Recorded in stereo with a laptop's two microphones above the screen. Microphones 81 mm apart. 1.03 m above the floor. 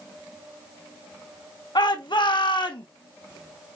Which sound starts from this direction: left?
A shout, at 1.8 s.